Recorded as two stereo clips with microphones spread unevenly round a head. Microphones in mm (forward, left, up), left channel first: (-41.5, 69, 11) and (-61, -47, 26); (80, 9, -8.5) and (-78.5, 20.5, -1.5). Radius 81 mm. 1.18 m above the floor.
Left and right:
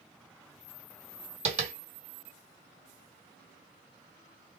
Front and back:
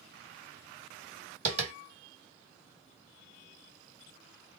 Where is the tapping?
130° right, 1.6 m.